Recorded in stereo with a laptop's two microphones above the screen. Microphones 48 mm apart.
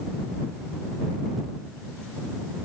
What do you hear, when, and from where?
Only background noise.